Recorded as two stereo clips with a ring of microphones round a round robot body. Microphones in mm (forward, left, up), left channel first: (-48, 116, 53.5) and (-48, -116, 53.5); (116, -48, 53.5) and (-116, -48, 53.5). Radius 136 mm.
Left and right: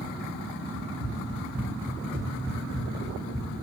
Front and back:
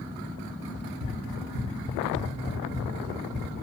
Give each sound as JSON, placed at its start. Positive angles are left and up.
{"t": 0.7, "sound": "running footsteps", "azimuth_deg": -130, "distance_m": 1.3}